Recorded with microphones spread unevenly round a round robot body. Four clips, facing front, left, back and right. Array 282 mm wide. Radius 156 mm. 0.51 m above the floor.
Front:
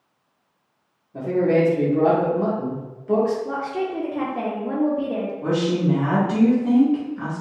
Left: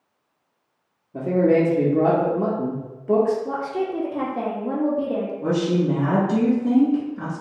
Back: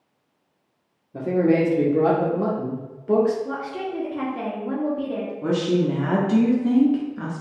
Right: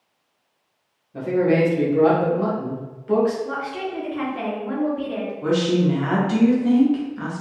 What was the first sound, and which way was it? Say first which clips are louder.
A man speaking: left 1 dB, even; 140° left.